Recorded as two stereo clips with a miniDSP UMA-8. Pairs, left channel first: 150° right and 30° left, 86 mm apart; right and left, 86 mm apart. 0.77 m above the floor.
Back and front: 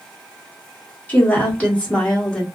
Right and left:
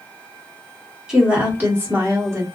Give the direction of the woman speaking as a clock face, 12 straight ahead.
7 o'clock.